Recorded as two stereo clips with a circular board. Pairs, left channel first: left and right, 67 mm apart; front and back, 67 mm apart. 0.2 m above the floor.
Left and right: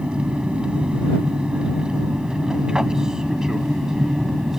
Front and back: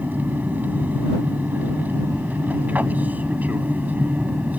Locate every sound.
0.0 s an aircraft: 150° right; by 4.6 s 165° right